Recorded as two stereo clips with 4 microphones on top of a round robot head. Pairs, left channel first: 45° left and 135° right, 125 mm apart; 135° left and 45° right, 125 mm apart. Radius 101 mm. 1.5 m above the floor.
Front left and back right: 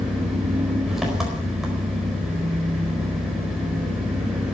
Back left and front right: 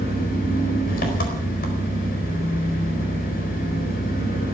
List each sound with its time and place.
0.0 s an engine running: 140° left, 4 m